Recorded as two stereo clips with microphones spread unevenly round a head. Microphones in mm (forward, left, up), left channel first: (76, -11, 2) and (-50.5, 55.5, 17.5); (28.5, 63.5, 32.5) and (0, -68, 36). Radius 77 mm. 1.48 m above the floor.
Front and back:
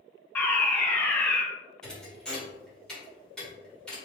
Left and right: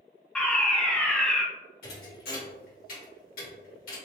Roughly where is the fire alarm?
Ahead.